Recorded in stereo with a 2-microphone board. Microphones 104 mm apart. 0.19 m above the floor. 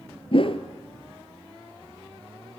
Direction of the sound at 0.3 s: 55° left (ahead or behind).